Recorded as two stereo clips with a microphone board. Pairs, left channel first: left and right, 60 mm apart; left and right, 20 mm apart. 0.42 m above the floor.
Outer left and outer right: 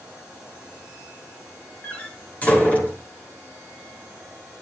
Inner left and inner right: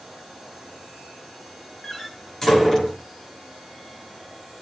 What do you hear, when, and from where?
1.8 s a door slam: 25° left (ahead or behind), 5.5 m